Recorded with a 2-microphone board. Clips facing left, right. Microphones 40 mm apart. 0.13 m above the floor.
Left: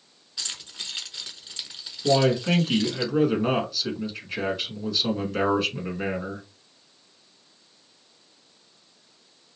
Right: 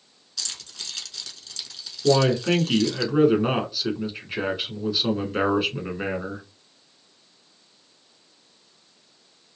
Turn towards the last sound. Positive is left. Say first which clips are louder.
# right 1 dB
turn(degrees=-10)  # may be behind; listen again after turning